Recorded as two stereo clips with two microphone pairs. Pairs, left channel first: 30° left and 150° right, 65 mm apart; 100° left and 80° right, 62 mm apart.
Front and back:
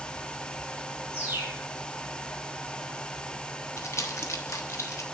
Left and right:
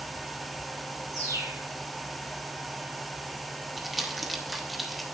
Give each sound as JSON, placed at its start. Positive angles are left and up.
{"t": 1.1, "sound": "a bird", "azimuth_deg": -90, "distance_m": 2.0}
{"t": 3.8, "sound": "crumpling", "azimuth_deg": 10, "distance_m": 1.1}